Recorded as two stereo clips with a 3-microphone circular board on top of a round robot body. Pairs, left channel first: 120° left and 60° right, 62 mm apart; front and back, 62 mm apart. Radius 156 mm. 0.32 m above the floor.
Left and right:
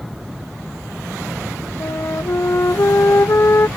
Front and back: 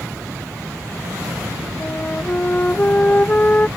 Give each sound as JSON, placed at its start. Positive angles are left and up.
{"t": 1.8, "sound": "a flute", "azimuth_deg": 70}